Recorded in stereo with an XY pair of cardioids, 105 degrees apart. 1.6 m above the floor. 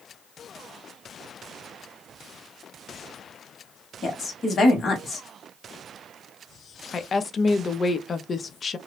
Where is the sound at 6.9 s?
40° left, 0.5 m.